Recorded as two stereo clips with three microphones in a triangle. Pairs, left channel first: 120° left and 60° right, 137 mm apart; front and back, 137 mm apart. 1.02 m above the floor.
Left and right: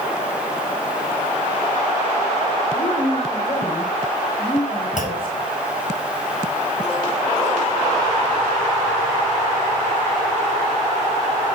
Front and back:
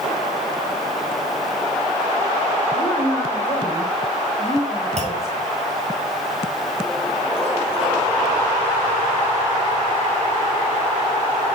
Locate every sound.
2.7 s a woman speaking: 80° left, 3.5 m; by 5.5 s 65° left, 6.5 m
5.0 s a clunk: 145° left, 6 m